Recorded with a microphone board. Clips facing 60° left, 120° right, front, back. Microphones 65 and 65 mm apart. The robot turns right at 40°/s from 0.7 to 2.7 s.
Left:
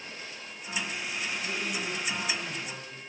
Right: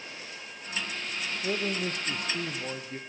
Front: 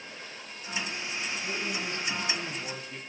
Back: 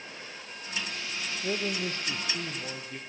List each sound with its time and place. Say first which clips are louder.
1.4 s a man speaking: right 3 dB, back 6 dB; 150° right, 3 m; by 3.0 s 100° right, 3 m